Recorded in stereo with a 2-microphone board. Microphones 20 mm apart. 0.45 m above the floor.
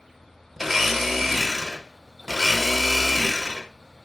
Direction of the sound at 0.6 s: Centre (ahead or behind).